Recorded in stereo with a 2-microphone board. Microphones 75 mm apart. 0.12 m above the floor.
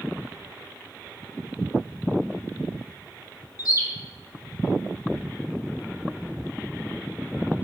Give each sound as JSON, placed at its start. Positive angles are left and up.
{"t": 3.6, "sound": "a bird", "side_deg": 55, "distance_m": 0.8}